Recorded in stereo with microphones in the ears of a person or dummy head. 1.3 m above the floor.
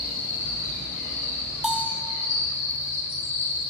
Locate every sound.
0.0 s an insect: 15° left (ahead or behind), 3 m
1.6 s a bell: 5° right (ahead or behind), 0.5 m